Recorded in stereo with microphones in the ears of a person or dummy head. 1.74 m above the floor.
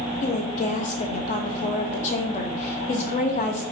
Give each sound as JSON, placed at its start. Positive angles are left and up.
{"t": 0.2, "sound": "a woman speaking", "side_deg": 40, "distance_m": 0.7}